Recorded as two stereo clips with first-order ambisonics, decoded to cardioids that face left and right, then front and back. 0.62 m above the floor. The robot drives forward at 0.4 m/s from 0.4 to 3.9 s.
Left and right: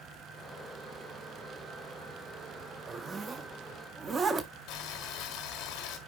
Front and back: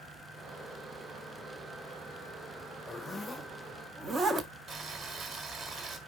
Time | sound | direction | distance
2.9 | a zipper | 50° right | 0.8 m
4.7 | boiling | 115° left | 1.5 m